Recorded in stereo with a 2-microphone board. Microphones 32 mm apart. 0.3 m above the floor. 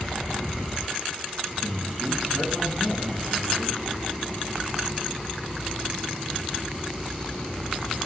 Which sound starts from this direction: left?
A man speaking, at 1.6 s.